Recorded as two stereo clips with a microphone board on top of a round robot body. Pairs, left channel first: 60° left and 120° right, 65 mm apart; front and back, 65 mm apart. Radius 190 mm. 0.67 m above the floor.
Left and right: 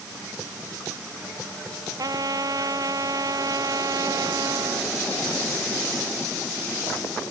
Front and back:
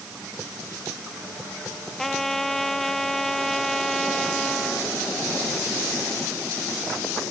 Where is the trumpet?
85° right.